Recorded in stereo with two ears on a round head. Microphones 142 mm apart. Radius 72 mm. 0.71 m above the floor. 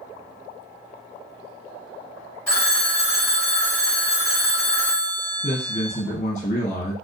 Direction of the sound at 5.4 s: 45° left (ahead or behind).